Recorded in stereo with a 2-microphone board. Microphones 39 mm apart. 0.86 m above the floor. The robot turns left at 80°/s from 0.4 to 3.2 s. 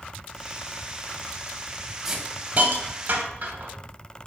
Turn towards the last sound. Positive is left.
turn(degrees=-50)  # may be behind; listen again after turning